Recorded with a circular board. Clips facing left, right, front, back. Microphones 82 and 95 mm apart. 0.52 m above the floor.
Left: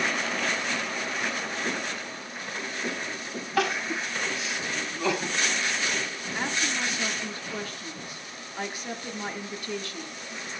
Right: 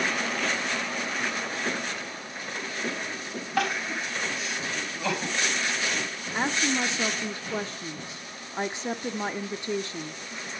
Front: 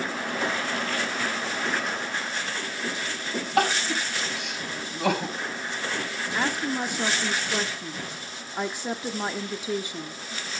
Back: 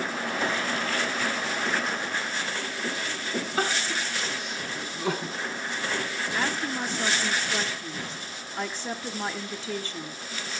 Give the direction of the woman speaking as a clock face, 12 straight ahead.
2 o'clock.